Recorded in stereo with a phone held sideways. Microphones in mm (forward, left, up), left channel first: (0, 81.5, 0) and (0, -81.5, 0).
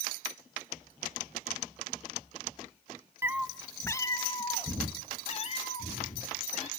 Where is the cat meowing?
15° right (ahead or behind), 0.5 m; by 6.7 s 45° left (ahead or behind), 2 m.